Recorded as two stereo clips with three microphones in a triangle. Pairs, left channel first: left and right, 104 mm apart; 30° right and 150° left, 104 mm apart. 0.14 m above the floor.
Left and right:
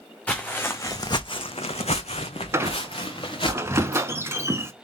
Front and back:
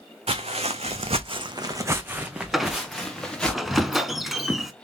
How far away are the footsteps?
About 0.8 m.